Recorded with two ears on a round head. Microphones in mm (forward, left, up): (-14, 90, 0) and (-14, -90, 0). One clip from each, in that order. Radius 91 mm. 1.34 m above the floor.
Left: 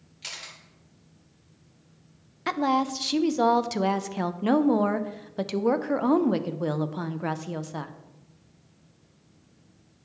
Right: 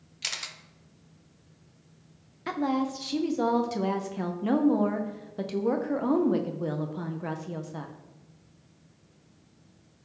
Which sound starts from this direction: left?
A woman speaking, at 2.5 s.